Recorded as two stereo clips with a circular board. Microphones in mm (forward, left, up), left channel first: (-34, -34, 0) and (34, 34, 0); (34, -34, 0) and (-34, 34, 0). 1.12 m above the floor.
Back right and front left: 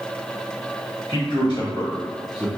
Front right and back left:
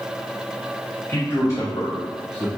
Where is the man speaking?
110° right, 1.1 m; by 2.5 s 30° right, 0.8 m.